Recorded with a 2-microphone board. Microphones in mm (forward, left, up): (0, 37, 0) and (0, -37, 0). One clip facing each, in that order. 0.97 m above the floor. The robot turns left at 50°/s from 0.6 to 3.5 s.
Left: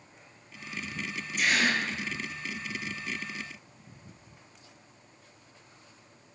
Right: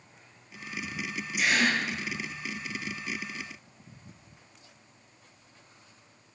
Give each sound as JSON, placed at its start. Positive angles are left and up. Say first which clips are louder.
{"t": 1.4, "sound": "a gasp", "louder": "right 1 dB", "side_deg": -10, "distance_m": 1.4}